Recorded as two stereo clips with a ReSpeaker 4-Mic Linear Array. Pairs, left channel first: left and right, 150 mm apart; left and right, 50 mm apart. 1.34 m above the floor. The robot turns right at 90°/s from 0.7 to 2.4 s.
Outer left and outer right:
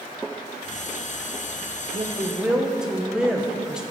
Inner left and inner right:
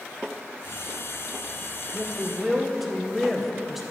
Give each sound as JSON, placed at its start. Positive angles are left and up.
{"t": 1.9, "sound": "a woman speaking", "azimuth_deg": -50, "distance_m": 1.1}